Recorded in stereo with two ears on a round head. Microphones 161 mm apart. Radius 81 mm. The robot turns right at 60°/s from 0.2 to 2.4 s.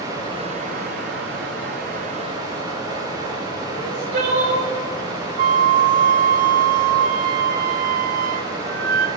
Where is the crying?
60° right (ahead or behind), 2.5 m.